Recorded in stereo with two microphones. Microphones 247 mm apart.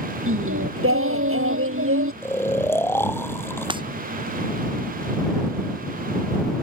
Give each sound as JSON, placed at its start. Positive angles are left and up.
{"t": 0.3, "sound": "singing", "side_deg": -65}
{"t": 2.2, "sound": "snoring", "side_deg": 10}
{"t": 3.7, "sound": "breaking glass", "side_deg": -20}